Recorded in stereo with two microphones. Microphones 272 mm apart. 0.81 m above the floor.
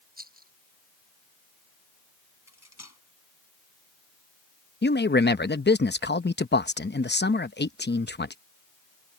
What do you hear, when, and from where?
0.2 s a rattle: 35° right (ahead or behind)
2.5 s cutlery clinking: 75° left (ahead or behind)
4.8 s a man speaking: 40° left (ahead or behind)